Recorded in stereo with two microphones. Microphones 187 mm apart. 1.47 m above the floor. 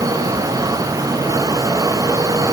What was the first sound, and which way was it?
Only background noise.